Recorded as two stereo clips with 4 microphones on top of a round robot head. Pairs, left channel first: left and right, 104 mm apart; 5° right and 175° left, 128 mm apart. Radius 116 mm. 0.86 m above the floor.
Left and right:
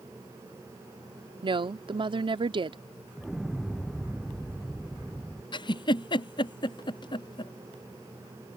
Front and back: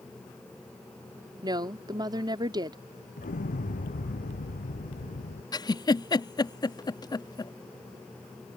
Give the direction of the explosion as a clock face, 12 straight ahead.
12 o'clock.